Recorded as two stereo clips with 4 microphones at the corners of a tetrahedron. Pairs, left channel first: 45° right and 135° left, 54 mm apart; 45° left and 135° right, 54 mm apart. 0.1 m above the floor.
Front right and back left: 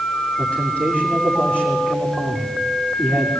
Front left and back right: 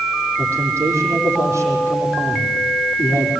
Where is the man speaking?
110° right, 5 m.